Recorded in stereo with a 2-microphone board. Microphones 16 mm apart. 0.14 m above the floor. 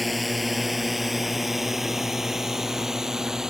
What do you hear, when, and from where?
0.0 s a drone: 5° left (ahead or behind); by 3.5 s 25° right (ahead or behind)